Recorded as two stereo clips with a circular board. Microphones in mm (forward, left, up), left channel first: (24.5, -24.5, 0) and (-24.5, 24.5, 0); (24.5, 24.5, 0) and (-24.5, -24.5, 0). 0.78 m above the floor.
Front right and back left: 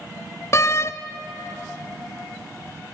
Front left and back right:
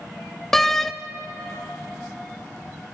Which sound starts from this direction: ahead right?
A door slam, at 0.5 s.